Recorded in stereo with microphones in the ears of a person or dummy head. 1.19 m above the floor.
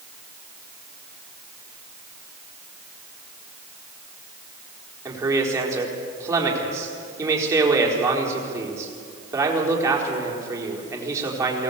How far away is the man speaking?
About 4 m.